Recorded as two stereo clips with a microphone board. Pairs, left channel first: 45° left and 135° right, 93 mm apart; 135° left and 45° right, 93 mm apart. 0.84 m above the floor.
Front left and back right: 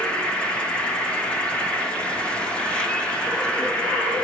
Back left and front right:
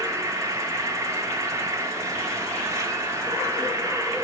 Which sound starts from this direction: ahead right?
An insect, at 0.0 s.